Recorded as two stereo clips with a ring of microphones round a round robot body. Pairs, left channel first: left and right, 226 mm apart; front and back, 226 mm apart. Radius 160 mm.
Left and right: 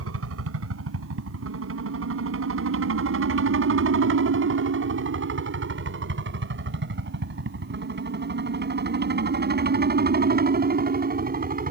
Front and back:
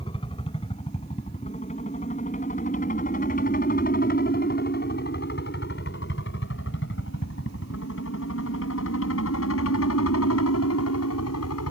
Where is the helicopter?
75° right; by 11.7 s 40° right.